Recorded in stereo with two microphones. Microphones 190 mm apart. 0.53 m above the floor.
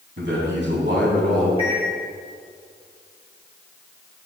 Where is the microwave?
30° left (ahead or behind), 4.5 m.